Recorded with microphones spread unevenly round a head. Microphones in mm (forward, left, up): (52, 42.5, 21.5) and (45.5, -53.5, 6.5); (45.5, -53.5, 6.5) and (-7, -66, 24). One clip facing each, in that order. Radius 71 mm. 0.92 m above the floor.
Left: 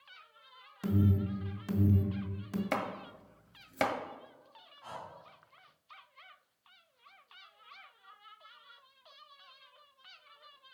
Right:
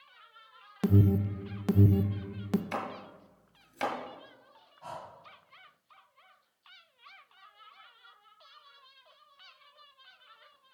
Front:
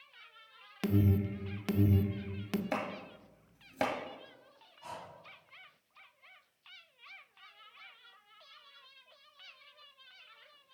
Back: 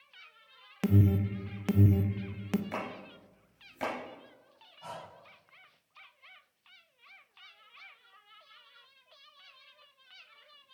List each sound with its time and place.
0.8 s an alarm: 85° right, 0.6 m
2.7 s chopping: 70° left, 1.5 m
4.8 s breathing: 130° right, 3 m